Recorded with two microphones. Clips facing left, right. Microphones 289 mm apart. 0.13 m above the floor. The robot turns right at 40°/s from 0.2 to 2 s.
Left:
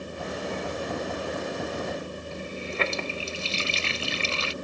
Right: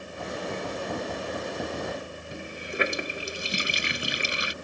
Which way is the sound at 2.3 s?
15° right (ahead or behind).